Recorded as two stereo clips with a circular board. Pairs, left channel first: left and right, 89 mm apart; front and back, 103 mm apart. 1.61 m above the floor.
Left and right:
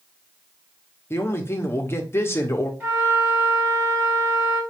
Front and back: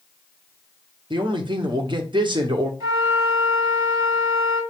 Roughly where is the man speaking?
Behind left.